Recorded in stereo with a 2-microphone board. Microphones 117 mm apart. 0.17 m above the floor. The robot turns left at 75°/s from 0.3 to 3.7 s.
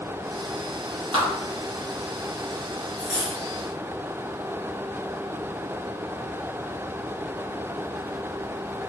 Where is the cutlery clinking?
135° right, 1.4 m; by 3.4 s 165° right, 1.4 m.